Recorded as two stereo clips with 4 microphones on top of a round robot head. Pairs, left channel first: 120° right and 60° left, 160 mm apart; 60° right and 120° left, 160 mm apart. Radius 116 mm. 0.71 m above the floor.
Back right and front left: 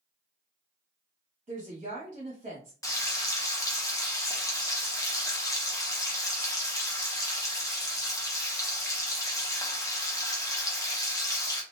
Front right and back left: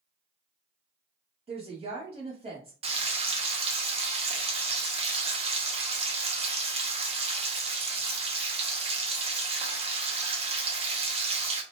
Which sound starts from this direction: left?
A woman speaking, at 1.5 s.